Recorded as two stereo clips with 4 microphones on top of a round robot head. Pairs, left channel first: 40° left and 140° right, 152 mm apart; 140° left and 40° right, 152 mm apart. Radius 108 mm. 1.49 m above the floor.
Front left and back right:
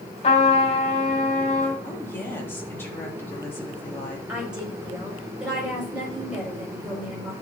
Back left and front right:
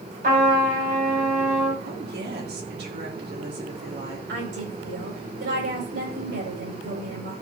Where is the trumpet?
10° right, 4.5 m.